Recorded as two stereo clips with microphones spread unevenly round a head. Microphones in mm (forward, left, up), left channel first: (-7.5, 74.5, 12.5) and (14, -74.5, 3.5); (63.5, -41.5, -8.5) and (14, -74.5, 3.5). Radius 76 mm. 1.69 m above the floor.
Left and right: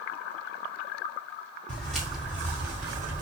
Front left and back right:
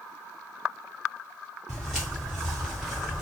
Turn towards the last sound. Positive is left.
turn(degrees=-110)